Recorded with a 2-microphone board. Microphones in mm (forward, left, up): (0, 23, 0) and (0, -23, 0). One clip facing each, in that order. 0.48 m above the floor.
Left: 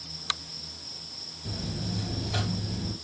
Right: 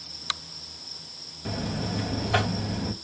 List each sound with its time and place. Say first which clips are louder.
1.4 s a buzzer: right 5 dB; 50° right (ahead or behind), 0.6 m